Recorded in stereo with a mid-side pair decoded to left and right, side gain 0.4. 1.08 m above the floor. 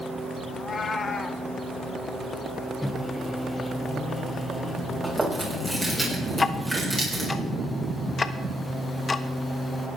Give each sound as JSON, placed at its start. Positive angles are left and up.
{"t": 0.5, "sound": "a cat meowing", "azimuth_deg": 45, "distance_m": 1.6}
{"t": 2.8, "sound": "a microwave", "azimuth_deg": 20, "distance_m": 1.2}
{"t": 5.0, "sound": "chewing", "azimuth_deg": -15, "distance_m": 7.5}
{"t": 6.3, "sound": "ticking", "azimuth_deg": 35, "distance_m": 1.1}